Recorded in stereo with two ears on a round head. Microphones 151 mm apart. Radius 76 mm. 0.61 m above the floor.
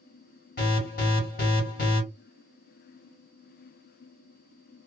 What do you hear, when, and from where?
0.6 s an alarm: 55° left (ahead or behind), 1.5 m